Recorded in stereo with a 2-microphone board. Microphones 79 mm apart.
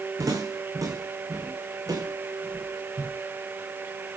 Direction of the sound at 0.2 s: 50° right (ahead or behind).